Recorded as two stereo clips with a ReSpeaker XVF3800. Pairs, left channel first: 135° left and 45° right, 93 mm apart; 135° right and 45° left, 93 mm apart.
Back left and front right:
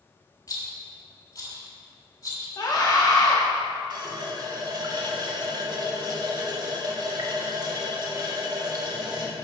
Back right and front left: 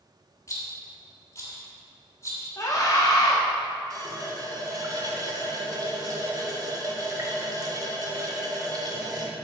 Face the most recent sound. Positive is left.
turn(degrees=-5)